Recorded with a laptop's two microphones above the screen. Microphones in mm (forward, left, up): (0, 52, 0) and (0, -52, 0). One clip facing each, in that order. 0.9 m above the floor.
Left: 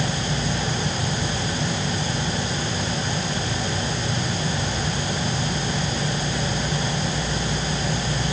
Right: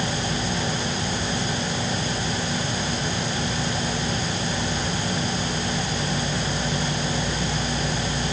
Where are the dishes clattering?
No dishes clattering in this recording.